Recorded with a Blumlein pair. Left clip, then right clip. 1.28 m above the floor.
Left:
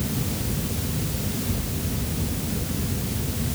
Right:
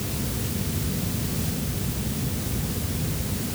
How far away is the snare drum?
No snare drum in this recording.